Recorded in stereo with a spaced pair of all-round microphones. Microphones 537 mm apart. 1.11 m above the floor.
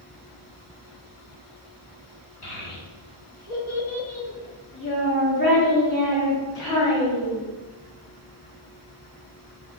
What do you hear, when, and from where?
2.4 s a child speaking: 45° left (ahead or behind), 1.1 m; by 7.4 s 10° left (ahead or behind), 2.5 m